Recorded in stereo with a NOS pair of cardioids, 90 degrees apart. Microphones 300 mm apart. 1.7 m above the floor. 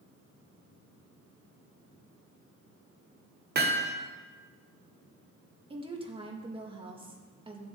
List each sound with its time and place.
3.5 s hammering: 35° right, 1.4 m
5.7 s a woman speaking: 20° right, 2 m